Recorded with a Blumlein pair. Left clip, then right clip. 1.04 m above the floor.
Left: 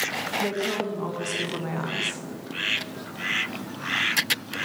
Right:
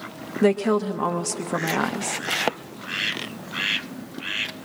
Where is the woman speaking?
65° right, 1.2 m.